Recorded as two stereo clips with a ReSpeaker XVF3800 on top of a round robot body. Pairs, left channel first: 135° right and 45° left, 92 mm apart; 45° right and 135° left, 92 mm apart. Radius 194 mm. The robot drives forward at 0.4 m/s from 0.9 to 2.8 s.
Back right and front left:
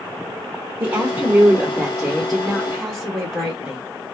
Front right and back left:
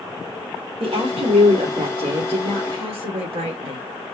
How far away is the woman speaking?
About 1.2 m.